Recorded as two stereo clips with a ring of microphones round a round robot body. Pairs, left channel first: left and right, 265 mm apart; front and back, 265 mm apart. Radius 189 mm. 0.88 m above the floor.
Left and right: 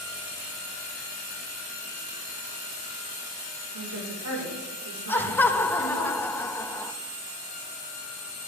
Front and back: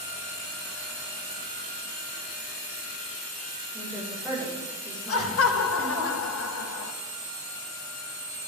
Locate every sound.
3.7 s a woman speaking: 85° right, 4 m
5.1 s laughter: 10° left, 1.2 m